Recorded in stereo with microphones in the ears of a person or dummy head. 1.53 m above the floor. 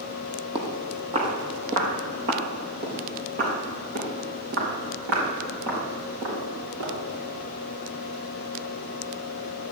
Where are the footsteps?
30° right (ahead or behind), 3 m; by 6.9 s 65° right (ahead or behind), 7 m.